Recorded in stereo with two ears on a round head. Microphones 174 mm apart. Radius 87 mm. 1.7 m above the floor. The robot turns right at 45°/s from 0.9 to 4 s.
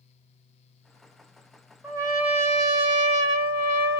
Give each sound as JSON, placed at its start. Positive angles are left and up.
{"t": 1.8, "sound": "a trumpet", "azimuth_deg": -170, "distance_m": 1.3}